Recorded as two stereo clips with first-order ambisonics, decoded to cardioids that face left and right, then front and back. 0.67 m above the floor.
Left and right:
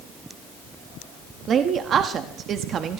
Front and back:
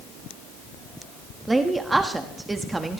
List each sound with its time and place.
1.5 s a woman speaking: 110° right, 1.1 m